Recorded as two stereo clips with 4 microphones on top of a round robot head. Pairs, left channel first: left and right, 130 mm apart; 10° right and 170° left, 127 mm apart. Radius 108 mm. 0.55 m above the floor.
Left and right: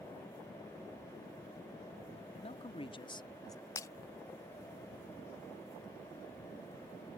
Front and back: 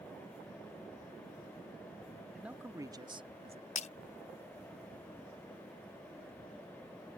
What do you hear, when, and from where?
2.3 s a man speaking: 90° left; by 3.7 s 155° left
3.8 s breaking glass: 20° left